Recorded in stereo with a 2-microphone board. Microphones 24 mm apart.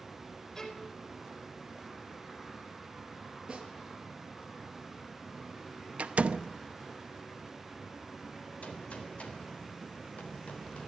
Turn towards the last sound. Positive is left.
turn(degrees=70)  # may be behind; listen again after turning